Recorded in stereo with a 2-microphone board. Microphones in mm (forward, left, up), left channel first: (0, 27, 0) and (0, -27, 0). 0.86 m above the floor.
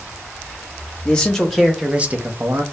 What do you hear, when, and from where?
1.1 s a man speaking: 15° left (ahead or behind), 0.9 m; by 2.6 s 55° right (ahead or behind), 0.6 m